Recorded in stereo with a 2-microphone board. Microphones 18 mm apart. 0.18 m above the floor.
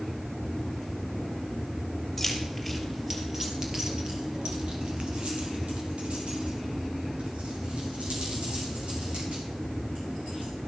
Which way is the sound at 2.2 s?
5° left (ahead or behind).